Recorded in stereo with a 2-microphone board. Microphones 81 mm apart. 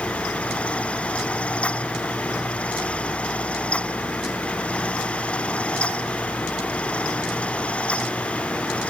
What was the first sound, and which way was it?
Only background noise.